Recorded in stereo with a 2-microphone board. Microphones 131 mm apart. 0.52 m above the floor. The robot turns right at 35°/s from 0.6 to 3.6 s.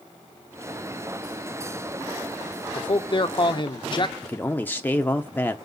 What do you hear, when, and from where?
2.8 s a man speaking: 35° left (ahead or behind), 0.8 m
4.2 s a man speaking: 15° left (ahead or behind), 0.6 m